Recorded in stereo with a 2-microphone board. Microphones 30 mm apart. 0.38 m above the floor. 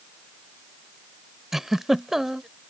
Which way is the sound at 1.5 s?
10° right (ahead or behind).